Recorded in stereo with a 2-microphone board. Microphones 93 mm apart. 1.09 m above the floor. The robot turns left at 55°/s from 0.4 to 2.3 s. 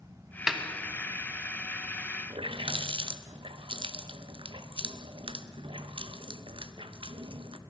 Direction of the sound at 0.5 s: 5° right (ahead or behind).